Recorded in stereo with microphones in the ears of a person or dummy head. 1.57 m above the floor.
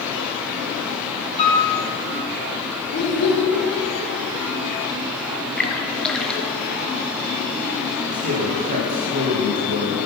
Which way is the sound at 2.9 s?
60° left (ahead or behind).